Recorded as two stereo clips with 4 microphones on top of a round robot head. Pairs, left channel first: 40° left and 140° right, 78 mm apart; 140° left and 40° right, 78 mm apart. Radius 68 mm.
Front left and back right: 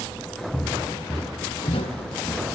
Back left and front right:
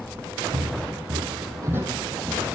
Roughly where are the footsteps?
Ahead right.